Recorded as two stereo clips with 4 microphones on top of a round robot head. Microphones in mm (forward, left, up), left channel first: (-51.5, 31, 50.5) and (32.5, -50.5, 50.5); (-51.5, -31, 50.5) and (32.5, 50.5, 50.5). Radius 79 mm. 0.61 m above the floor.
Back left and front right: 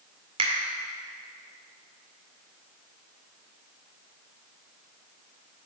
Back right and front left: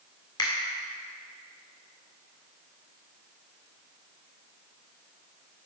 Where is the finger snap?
85° right, 1.8 m.